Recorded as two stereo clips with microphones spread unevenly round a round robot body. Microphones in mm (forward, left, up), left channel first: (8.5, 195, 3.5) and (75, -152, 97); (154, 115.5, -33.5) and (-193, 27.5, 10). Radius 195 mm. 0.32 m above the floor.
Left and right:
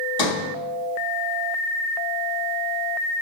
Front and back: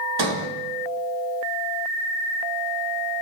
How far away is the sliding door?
About 1.1 m.